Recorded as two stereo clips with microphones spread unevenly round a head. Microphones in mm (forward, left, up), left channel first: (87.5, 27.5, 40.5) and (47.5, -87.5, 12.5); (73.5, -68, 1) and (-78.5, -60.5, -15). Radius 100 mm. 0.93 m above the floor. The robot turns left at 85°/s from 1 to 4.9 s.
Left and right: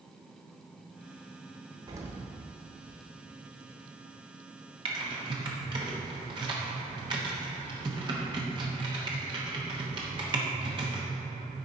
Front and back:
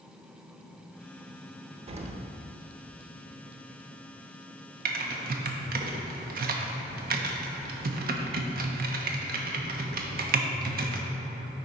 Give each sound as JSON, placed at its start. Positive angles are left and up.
{"t": 1.9, "sound": "an explosion", "azimuth_deg": -150, "distance_m": 0.7}
{"t": 4.8, "sound": "typing on a keyboard", "azimuth_deg": -160, "distance_m": 0.9}